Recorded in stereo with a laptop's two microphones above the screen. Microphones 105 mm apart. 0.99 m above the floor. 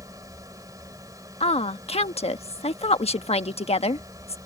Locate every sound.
0.0 s a machine running: 35° right (ahead or behind)
1.4 s a woman speaking: 75° left (ahead or behind)